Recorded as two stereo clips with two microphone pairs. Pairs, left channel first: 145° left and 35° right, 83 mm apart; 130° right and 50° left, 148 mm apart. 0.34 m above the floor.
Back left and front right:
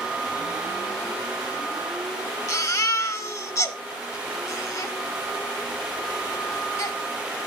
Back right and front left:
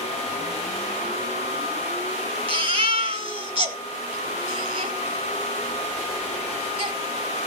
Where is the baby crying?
100° left, 1.4 m.